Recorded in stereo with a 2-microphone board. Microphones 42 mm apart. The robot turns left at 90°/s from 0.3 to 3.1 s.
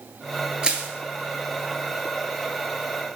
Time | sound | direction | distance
0.6 | crushing | 20° right (ahead or behind) | 1.0 m